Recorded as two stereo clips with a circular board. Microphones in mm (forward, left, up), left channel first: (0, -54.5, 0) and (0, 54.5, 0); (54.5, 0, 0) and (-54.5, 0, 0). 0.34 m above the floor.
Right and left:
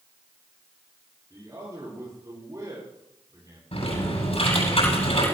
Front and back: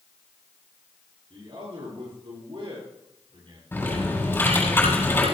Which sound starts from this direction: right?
Typing on a keyboard, at 3.7 s.